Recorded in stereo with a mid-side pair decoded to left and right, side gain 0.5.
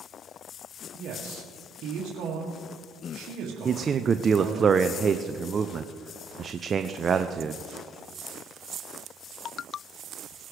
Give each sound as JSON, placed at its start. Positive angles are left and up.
{"t": 0.9, "sound": "a man speaking", "azimuth_deg": -65, "distance_m": 2.0}
{"t": 3.6, "sound": "a man speaking", "azimuth_deg": -40, "distance_m": 0.6}